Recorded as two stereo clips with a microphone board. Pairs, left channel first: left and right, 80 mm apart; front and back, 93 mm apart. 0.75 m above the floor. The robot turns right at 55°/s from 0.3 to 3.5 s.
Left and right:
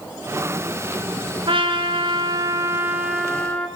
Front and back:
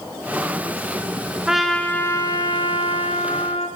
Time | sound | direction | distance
1.5 | a trumpet | 95° right | 3.5 m